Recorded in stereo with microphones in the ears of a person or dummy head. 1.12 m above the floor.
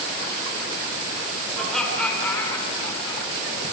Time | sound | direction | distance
1.5 | laughter | centre (ahead or behind) | 5 m